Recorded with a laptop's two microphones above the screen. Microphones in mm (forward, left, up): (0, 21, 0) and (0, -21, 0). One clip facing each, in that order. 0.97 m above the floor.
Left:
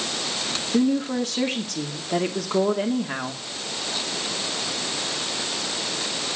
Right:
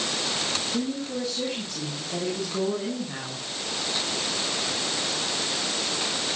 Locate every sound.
0.7 s a woman speaking: 75° left (ahead or behind), 2.5 m